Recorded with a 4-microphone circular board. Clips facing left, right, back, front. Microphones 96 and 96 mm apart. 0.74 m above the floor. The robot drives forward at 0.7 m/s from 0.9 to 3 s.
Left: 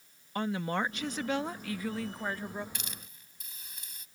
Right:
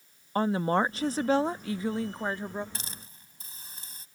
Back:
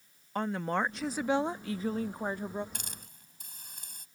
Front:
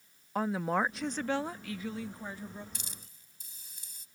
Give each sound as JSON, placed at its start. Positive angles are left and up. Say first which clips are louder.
{"t": 0.3, "sound": "a woman speaking", "louder": "right 6 dB, front 1 dB", "azimuth_deg": -80}
{"t": 2.8, "sound": "a hiss", "louder": "right 1 dB, back 3 dB", "azimuth_deg": -145}